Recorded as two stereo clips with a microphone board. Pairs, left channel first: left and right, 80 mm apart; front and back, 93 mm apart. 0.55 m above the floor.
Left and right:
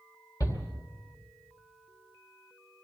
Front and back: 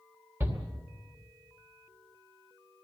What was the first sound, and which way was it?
A shout, 120° left.